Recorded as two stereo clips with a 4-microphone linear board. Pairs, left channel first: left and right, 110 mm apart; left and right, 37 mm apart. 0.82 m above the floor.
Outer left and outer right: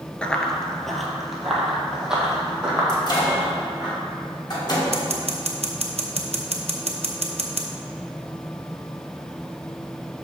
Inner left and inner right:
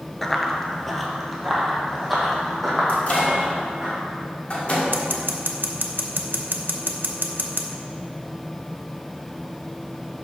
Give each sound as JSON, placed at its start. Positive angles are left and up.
{"t": 0.2, "sound": "running footsteps", "side_deg": 10, "distance_m": 0.8}
{"t": 2.9, "sound": "a microwave", "side_deg": 40, "distance_m": 1.5}
{"t": 4.9, "sound": "scissors", "side_deg": -70, "distance_m": 0.8}